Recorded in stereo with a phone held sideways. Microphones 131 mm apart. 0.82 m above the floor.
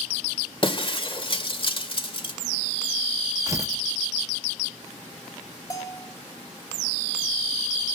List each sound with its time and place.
0.6 s breaking glass: 40° left (ahead or behind), 1.5 m
3.5 s tearing paper: 25° right (ahead or behind), 0.8 m
5.7 s a bell: 25° left (ahead or behind), 1.9 m